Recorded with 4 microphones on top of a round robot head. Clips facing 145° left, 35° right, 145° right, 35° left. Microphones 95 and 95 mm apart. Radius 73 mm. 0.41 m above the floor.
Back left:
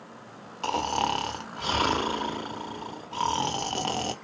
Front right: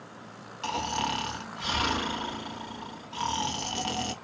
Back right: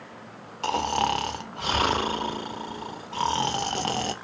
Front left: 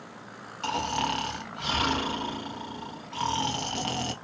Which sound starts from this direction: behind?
Snoring, at 0.6 s.